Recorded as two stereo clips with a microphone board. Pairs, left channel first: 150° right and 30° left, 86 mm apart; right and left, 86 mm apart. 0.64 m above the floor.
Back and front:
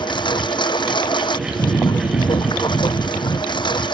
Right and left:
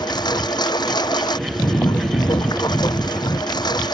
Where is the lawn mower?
125° right.